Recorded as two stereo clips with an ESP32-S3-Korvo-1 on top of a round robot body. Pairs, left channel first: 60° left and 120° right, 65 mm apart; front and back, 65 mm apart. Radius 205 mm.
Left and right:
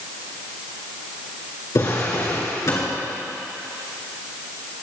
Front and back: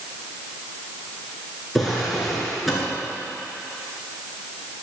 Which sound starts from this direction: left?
A drawer, at 1.8 s.